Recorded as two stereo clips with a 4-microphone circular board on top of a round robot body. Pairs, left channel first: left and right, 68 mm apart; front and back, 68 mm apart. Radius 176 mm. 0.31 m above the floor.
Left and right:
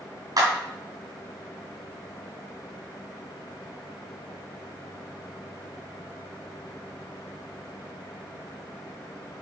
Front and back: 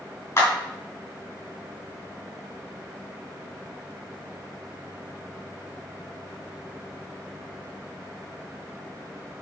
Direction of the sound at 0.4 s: 60° right.